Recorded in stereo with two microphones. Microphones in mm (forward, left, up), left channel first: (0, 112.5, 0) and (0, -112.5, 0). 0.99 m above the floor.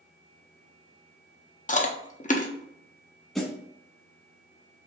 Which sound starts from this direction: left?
Chewing, at 1.7 s.